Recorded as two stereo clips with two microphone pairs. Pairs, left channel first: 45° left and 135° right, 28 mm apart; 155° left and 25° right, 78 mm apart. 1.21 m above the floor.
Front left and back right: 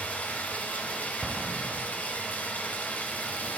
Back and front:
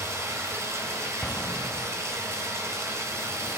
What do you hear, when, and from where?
0.0 s running water: 25° left, 2.5 m
1.2 s an explosion: 160° right, 0.6 m